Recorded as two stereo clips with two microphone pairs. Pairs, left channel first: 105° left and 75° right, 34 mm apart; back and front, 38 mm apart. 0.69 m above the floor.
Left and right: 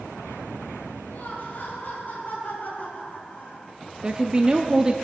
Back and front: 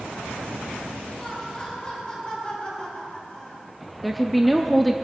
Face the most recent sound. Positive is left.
turn(degrees=-90)